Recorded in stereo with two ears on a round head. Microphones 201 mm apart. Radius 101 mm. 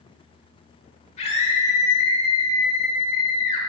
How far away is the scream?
About 1.4 m.